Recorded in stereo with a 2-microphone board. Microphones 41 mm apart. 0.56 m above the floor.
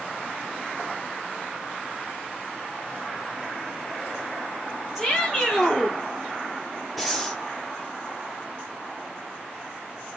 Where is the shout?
Centre (ahead or behind), 1.6 m.